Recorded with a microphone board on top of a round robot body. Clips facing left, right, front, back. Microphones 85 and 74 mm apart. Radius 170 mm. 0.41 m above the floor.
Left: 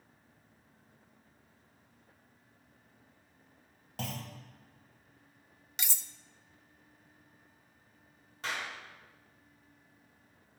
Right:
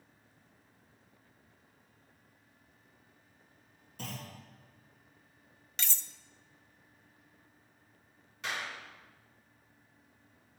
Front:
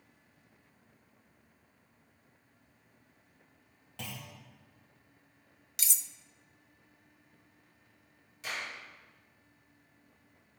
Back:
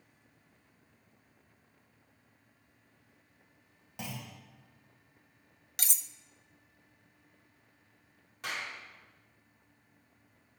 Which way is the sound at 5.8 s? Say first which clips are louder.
Right 1 dB, back 1 dB; 165° left.